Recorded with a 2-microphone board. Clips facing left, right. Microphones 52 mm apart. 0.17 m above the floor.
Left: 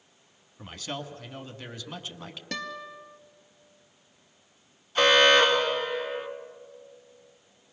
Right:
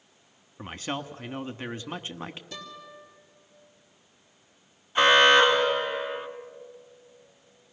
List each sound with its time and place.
0.6 s a man speaking: 30° right (ahead or behind), 1.2 m
2.5 s a guitar: 65° left (ahead or behind), 2 m
5.0 s an alarm: 15° right (ahead or behind), 2.5 m